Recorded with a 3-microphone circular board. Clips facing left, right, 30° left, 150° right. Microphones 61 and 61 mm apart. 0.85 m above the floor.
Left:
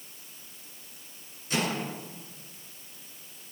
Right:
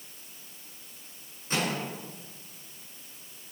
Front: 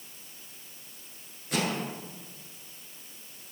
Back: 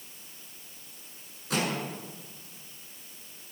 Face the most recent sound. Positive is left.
turn(degrees=-145)